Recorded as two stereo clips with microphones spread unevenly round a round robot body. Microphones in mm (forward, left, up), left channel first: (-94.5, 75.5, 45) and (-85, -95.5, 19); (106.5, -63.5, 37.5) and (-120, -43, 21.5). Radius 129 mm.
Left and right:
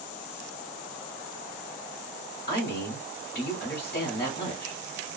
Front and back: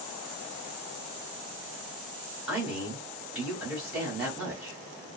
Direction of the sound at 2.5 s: 95° left.